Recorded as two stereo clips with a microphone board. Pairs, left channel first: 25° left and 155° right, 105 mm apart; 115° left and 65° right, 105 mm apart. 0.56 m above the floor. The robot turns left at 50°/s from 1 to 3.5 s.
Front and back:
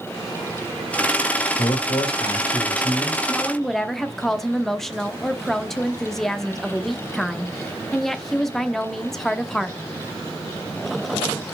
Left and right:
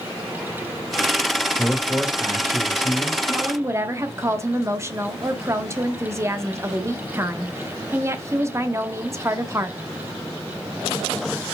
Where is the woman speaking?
45° right, 0.8 m; by 9.8 s 60° right, 0.8 m.